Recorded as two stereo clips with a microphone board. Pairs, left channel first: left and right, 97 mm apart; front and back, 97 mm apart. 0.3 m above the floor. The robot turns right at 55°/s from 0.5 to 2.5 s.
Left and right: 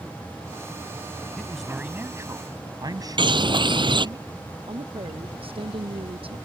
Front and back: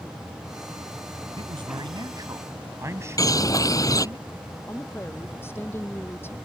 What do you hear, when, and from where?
1.4 s a man speaking: 170° left; by 4.2 s 125° right
3.2 s a bird: 55° right
4.7 s a woman speaking: 65° right